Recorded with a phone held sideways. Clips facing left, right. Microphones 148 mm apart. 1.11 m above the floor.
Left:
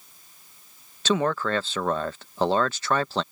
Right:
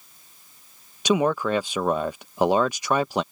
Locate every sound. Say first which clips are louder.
1.1 s a man speaking: right 3 dB; 15° right (ahead or behind)